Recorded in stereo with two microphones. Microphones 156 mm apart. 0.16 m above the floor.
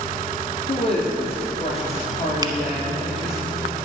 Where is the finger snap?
25° right (ahead or behind), 0.9 m.